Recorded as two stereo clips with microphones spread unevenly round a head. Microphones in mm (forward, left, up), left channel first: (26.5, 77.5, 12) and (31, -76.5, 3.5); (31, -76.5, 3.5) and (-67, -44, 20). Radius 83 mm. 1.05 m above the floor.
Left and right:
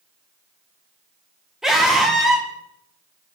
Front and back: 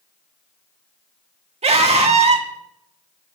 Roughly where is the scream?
Behind.